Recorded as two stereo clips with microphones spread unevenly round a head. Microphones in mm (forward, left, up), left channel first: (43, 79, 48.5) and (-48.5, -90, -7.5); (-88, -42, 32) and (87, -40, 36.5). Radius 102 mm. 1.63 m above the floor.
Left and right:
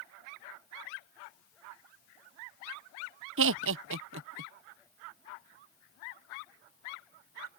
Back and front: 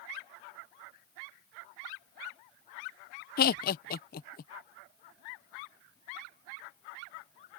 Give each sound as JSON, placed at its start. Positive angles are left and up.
{"t": 3.4, "sound": "laughter", "azimuth_deg": -150}